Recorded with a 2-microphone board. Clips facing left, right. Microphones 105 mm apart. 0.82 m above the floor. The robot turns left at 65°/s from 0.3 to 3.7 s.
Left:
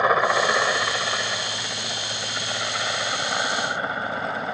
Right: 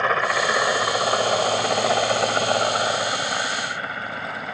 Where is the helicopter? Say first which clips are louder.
Left 2 dB; 15° left (ahead or behind); by 4.5 s 20° left (ahead or behind).